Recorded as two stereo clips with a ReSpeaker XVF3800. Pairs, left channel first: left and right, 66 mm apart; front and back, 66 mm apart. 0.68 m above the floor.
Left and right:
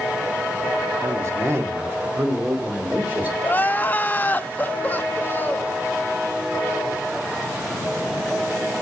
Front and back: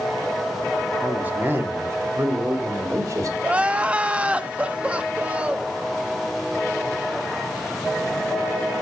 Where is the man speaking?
115° right, 1.7 m; by 3.3 s 150° right, 3 m.